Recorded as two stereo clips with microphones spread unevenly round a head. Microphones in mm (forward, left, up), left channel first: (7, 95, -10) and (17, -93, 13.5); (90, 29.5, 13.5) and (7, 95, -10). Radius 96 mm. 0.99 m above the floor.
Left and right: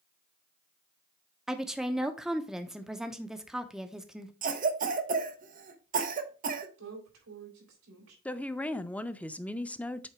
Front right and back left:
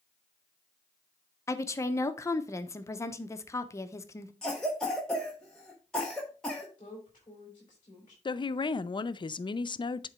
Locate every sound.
1.5 s a woman speaking: 15° left, 0.7 m
4.4 s a cough: 130° right, 1.1 m
6.8 s a woman speaking: 105° right, 4 m
8.2 s a woman speaking: 15° left, 0.5 m